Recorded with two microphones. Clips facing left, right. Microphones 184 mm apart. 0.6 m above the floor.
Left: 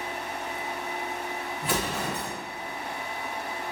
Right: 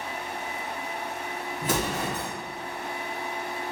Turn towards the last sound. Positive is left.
turn(degrees=-45)  # may be behind; listen again after turning